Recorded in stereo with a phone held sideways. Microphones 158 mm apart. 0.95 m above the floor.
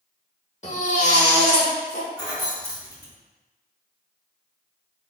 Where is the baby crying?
50° left (ahead or behind), 0.9 m.